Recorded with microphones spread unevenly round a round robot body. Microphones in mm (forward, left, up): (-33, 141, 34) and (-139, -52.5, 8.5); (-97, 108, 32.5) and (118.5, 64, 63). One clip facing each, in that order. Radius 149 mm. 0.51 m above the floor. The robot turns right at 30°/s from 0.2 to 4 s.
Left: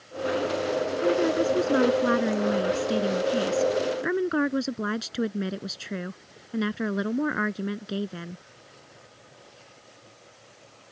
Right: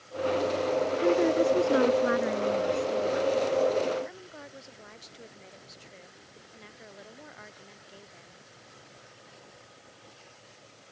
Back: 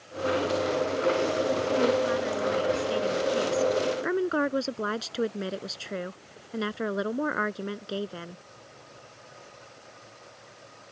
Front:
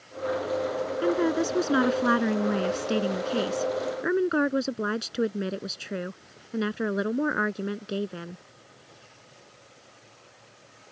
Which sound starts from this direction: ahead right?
A woman speaking, at 1.0 s.